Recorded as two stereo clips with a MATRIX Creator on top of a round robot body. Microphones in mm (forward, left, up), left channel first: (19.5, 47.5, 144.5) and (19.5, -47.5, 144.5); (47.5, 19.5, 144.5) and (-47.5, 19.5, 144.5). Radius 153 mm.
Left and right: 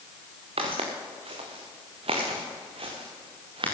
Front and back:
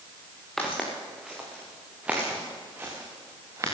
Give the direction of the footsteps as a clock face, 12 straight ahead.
3 o'clock.